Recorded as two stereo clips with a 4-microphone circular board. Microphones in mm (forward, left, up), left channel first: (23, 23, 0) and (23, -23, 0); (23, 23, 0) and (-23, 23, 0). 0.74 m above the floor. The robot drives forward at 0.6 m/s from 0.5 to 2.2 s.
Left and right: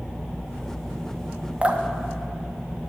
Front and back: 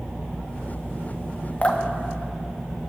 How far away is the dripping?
About 0.9 m.